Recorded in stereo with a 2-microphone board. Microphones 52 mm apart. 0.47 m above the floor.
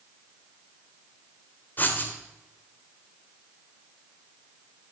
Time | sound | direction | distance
1.8 | writing | 40° left (ahead or behind) | 1.6 m